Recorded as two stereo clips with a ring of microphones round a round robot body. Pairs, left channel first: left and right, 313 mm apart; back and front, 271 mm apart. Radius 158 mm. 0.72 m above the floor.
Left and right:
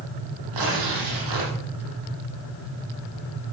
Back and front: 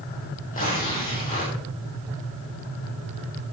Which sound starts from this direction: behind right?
Tearing paper, at 0.5 s.